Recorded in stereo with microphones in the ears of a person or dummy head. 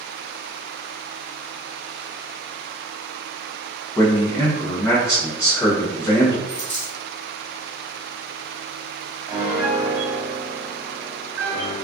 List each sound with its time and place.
4.0 s a man speaking: 5° left (ahead or behind), 0.6 m
6.5 s a dropped coin: 20° left (ahead or behind), 1.3 m
9.3 s a piano: 10° right (ahead or behind), 0.8 m